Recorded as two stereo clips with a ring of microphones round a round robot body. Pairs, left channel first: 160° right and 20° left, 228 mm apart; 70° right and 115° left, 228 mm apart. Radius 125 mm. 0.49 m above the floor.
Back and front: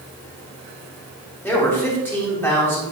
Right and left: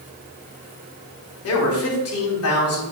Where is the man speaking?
75° right, 3 m.